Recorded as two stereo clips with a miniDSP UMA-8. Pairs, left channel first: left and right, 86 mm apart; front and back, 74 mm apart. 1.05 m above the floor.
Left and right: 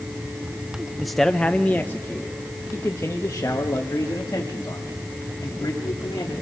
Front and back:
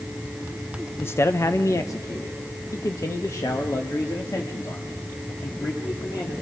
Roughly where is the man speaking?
Ahead.